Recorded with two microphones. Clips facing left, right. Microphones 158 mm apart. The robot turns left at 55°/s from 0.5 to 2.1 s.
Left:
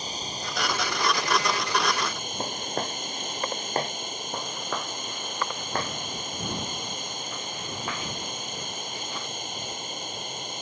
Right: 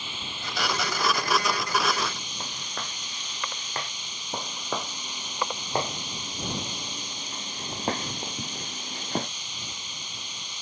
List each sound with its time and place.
0.0 s running water: 140° left; by 10.6 s 50° left
2.4 s footsteps: 40° left (ahead or behind)
4.3 s footsteps: 5° right (ahead or behind); by 9.3 s 50° right (ahead or behind)